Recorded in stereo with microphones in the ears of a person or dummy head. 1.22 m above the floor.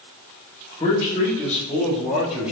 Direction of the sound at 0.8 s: 20° left (ahead or behind).